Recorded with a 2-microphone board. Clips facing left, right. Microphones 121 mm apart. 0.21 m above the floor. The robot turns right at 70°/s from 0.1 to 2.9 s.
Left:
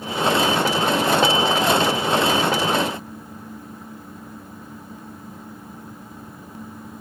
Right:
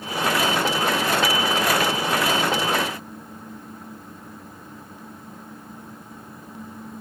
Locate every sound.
Only background noise.